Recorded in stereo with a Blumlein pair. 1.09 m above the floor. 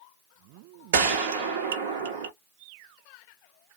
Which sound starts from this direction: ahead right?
A gunshot, at 0.9 s.